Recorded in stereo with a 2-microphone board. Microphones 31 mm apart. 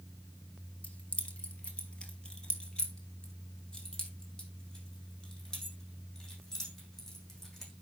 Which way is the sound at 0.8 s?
40° left (ahead or behind).